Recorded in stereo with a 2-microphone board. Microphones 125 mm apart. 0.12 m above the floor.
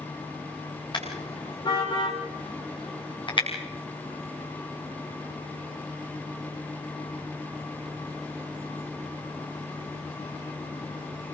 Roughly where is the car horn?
Left.